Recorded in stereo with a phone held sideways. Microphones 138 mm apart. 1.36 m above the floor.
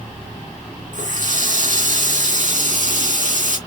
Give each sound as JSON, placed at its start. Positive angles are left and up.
{"t": 0.9, "sound": "a running tap", "side_deg": -65, "distance_m": 1.8}